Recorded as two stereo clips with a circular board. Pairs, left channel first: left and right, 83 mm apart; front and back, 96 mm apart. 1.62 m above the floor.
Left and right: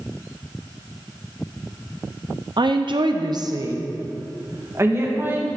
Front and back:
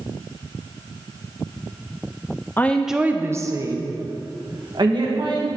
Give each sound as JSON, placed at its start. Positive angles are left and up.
{"t": 2.6, "sound": "a woman speaking", "azimuth_deg": -65, "distance_m": 0.6}